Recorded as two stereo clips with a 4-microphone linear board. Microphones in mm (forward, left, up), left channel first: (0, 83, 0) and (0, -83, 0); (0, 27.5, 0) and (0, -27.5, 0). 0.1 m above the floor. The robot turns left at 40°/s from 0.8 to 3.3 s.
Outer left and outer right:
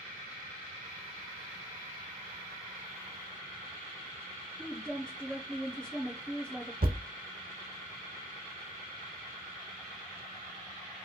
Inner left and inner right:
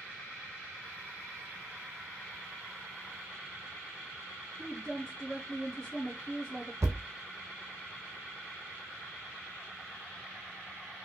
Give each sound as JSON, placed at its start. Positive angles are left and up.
{"t": 4.6, "sound": "a woman speaking", "side_deg": 5, "distance_m": 1.3}
{"t": 6.8, "sound": "a thud", "side_deg": -65, "distance_m": 0.9}